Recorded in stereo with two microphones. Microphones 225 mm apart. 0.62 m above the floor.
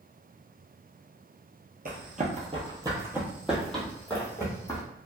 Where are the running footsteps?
45° right (ahead or behind), 0.9 m; by 4.8 s 15° left (ahead or behind), 1.7 m.